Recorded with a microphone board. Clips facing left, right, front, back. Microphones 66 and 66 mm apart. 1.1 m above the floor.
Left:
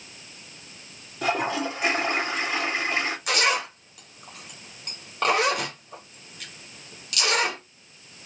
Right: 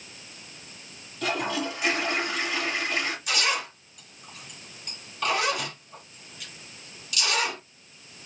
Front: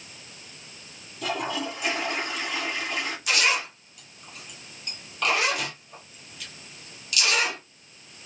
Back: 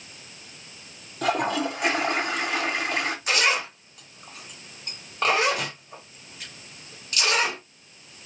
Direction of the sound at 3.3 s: 120° left.